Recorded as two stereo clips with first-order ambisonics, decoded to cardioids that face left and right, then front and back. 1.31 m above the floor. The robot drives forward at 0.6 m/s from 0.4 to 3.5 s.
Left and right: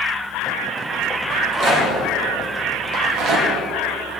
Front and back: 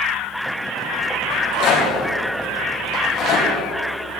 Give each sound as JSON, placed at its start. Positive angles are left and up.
{"t": 1.3, "sound": "a rattle", "azimuth_deg": -35, "distance_m": 3.0}